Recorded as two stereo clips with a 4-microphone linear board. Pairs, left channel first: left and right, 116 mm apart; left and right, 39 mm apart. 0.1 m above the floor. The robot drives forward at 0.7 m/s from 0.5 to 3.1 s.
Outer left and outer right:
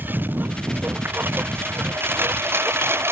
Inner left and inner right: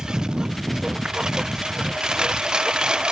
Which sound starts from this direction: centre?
A lawn mower, at 0.0 s.